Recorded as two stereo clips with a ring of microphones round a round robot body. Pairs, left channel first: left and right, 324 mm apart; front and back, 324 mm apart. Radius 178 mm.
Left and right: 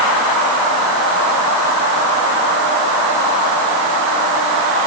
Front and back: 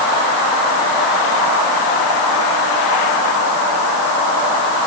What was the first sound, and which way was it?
Only background noise.